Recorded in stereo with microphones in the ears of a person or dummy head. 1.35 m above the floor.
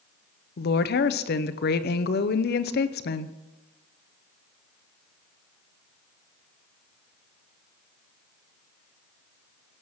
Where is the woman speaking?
55° left (ahead or behind), 0.7 m.